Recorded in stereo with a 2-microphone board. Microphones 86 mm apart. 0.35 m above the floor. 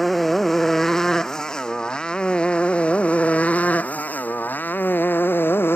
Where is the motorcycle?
Centre (ahead or behind); by 5.8 s 25° left (ahead or behind).